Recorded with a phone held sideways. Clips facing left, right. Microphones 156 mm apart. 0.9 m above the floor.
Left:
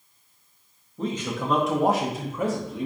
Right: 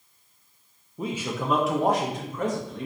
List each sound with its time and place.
1.0 s a man speaking: 10° right (ahead or behind), 0.7 m; by 2.9 s 10° left (ahead or behind), 0.9 m